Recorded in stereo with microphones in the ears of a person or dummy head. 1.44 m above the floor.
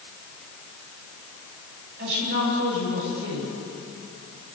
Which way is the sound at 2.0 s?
65° right (ahead or behind).